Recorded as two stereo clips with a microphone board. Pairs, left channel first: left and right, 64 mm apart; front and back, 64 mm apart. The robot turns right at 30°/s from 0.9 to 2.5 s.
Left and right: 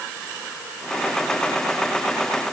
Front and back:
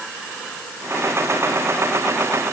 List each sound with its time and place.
Only background noise.